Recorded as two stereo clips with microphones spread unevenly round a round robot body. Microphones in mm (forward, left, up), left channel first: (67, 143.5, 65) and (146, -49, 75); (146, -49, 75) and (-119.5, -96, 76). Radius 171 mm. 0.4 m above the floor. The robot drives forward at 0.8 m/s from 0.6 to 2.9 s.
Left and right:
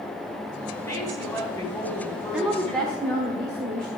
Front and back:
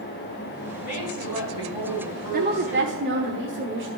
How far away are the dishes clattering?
I don't hear dishes clattering.